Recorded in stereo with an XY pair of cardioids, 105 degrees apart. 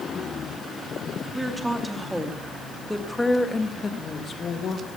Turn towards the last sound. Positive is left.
turn(degrees=60)